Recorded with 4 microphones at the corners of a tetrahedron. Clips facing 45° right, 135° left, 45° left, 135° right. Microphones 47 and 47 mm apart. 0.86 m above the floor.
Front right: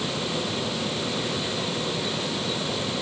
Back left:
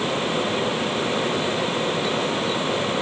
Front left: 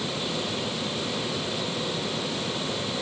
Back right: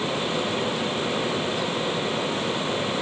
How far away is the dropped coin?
No dropped coin in this recording.